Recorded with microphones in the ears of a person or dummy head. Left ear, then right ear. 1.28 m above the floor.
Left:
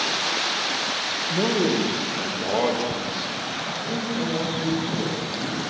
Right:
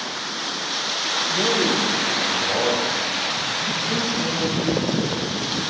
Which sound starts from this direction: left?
A man speaking, at 1.3 s.